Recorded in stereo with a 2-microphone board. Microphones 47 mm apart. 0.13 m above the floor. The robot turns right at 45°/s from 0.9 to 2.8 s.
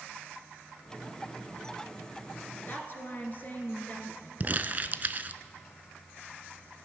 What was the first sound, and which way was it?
A woman speaking, 40° left (ahead or behind).